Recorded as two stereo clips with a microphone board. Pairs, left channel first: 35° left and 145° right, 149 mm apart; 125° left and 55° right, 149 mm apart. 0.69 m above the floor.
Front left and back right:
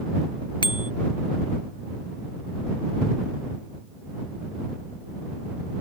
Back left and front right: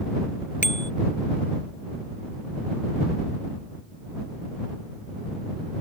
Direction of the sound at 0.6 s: 95° left.